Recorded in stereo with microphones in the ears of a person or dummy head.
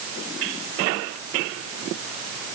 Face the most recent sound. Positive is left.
No sound to turn to.